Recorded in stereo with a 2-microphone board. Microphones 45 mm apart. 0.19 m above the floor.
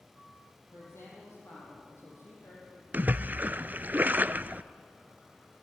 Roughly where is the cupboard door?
I don't hear a cupboard door.